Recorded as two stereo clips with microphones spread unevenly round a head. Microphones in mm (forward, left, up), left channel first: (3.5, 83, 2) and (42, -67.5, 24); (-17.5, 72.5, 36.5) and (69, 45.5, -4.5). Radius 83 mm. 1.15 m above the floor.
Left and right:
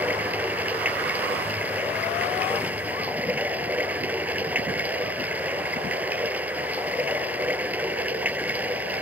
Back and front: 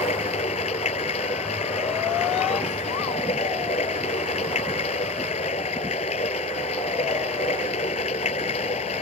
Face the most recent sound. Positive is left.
turn(degrees=-155)